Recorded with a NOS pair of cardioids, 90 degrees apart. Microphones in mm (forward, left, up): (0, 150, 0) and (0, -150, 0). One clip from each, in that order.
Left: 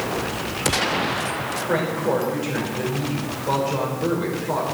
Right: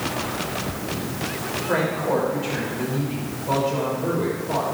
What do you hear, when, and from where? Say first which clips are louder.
1.7 s a woman speaking: even; 35° left, 6 m